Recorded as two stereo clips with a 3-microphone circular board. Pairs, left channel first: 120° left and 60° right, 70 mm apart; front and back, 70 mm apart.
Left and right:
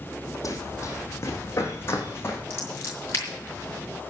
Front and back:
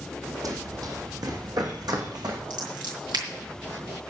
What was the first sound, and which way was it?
Running footsteps, 155° left.